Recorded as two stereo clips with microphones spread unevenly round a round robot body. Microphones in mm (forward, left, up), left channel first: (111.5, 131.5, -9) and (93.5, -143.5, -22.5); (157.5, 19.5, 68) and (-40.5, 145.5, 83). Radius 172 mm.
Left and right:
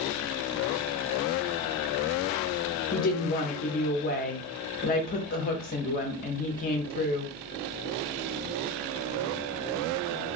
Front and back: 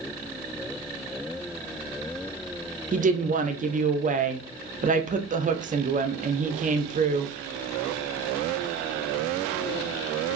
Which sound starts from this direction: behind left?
A woman speaking, at 2.9 s.